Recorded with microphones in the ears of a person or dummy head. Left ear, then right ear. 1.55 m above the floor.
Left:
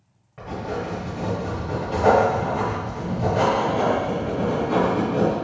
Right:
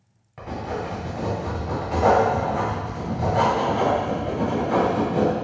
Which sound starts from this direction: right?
Writing, at 0.4 s.